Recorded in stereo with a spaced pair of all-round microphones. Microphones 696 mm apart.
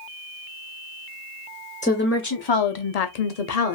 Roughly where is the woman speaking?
Centre.